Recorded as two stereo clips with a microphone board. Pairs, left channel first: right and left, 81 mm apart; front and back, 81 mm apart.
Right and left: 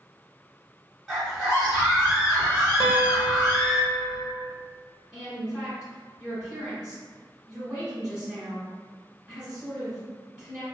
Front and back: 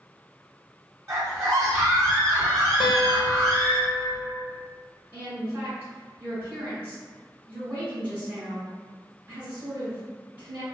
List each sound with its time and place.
1.1 s a scream: straight behind, 1.6 m
2.8 s a guitar: 10° left, 1.0 m
5.1 s a woman speaking: 160° left, 1.6 m